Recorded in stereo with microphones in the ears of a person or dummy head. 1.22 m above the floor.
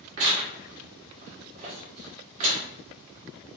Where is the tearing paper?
40° right (ahead or behind), 1.1 m.